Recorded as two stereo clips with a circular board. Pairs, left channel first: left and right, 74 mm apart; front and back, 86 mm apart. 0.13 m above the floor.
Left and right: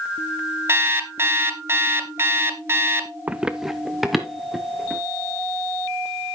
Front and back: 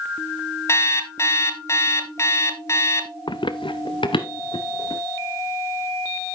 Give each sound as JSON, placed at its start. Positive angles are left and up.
{"t": 0.7, "sound": "an alarm clock", "azimuth_deg": -45, "distance_m": 1.1}
{"t": 3.3, "sound": "running footsteps", "azimuth_deg": -20, "distance_m": 0.6}